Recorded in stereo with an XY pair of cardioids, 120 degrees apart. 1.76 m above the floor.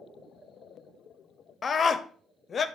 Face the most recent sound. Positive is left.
turn(degrees=30)